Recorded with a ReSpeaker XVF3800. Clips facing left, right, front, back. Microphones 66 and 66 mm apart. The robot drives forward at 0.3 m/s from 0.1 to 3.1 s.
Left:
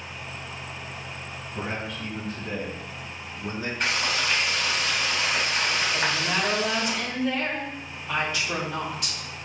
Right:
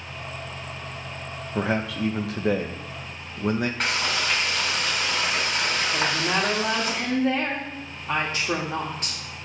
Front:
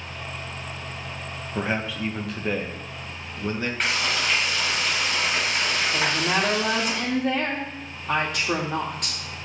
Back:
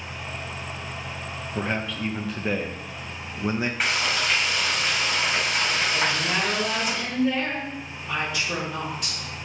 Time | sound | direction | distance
1.6 | a man speaking | 80° right | 1.0 m
3.8 | frying | 100° right | 3 m
5.9 | a woman speaking | 35° right | 2.0 m